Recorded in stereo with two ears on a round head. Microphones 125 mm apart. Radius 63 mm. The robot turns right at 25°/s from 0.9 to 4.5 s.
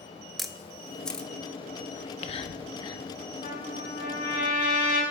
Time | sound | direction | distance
0.4 | a camera shutter | centre (ahead or behind) | 0.9 m
2.0 | whispering | 50° left (ahead or behind) | 1.2 m
3.4 | a trumpet | 65° left (ahead or behind) | 5 m